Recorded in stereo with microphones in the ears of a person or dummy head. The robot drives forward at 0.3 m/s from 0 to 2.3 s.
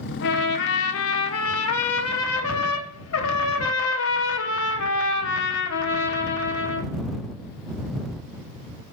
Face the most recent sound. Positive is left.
turn(degrees=85)